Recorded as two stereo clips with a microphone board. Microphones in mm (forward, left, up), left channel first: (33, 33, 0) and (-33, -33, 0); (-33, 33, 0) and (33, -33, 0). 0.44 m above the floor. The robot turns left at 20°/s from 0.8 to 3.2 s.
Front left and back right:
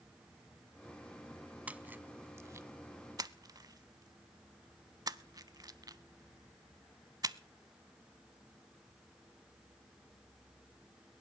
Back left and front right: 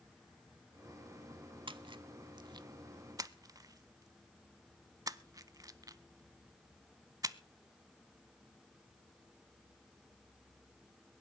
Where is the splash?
60° right, 0.5 m; by 7.4 s 90° right, 0.5 m.